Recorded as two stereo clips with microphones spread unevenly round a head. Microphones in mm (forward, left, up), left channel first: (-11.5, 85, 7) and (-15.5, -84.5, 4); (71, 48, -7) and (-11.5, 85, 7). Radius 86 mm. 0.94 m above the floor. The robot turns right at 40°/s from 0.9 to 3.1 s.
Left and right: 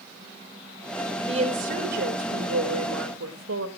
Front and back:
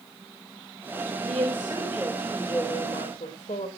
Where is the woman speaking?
150° right, 3 m; by 3.7 s 75° right, 3 m.